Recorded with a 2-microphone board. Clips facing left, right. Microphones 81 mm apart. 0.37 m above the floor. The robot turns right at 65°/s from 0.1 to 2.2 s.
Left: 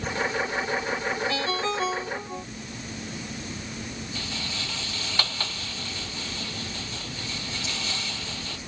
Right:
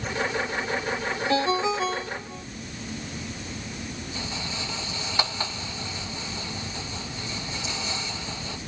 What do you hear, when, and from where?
1.3 s a ringtone: 35° right; by 2.5 s 25° left
4.2 s a rattle: 15° right (ahead or behind)